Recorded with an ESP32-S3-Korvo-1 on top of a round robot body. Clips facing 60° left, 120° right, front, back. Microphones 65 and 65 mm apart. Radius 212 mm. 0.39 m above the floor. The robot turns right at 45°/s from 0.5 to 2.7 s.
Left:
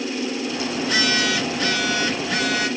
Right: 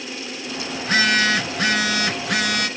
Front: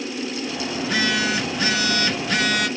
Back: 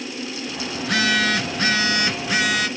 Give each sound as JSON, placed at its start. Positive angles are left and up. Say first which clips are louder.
{"t": 0.8, "sound": "a phone buzzing", "louder": "right 4 dB, back 2 dB", "azimuth_deg": -175, "distance_m": 1.4}